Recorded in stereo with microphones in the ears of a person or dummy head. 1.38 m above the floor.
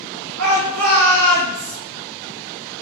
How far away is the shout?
About 1.7 m.